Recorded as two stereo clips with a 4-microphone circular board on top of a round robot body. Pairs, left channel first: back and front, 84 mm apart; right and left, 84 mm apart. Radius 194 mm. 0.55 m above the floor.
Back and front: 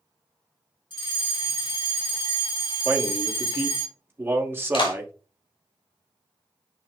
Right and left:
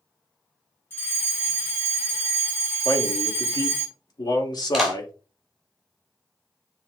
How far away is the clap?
About 5.5 m.